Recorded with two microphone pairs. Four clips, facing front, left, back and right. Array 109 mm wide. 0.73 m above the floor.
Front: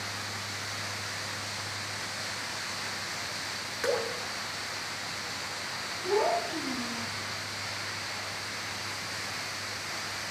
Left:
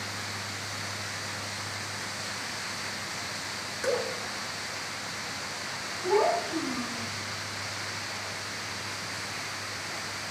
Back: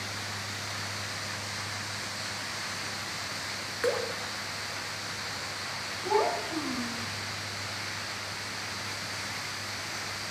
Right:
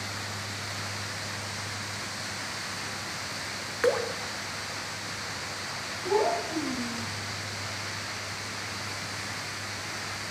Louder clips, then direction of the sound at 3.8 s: Right 4 dB, even; 85° right.